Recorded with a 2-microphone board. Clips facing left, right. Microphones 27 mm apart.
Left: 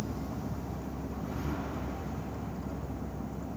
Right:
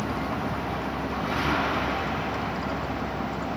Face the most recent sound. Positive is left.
turn(degrees=-75)  # may be behind; listen again after turning